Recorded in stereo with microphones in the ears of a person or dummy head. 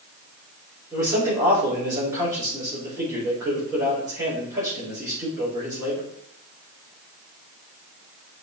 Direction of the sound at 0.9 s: 15° right (ahead or behind).